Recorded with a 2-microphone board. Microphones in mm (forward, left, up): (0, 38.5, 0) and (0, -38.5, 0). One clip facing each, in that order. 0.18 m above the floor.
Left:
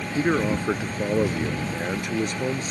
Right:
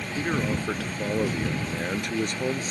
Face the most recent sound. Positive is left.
turn(degrees=0)  # may be behind; listen again after turning